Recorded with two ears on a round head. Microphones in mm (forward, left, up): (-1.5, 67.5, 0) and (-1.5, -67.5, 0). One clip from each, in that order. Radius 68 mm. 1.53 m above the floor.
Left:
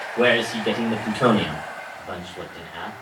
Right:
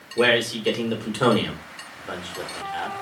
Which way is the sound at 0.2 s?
45° right (ahead or behind).